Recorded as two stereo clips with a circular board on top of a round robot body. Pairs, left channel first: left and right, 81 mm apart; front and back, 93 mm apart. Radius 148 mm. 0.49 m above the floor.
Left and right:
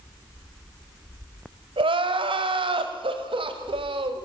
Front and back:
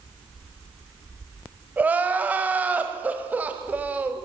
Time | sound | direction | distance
1.8 | crying | 105° right | 1.7 m